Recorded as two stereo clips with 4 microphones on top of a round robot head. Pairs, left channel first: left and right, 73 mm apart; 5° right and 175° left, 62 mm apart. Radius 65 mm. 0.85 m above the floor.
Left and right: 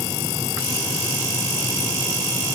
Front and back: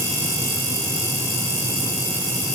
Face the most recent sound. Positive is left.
No sound to turn to.